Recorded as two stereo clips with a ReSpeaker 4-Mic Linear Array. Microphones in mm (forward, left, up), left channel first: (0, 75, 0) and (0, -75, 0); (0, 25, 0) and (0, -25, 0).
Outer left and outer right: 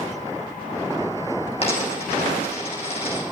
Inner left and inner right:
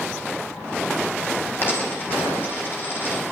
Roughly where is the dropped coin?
Left.